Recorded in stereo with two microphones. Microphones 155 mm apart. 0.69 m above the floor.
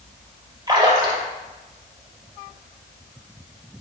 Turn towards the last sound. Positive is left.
turn(degrees=-25)  # may be behind; listen again after turning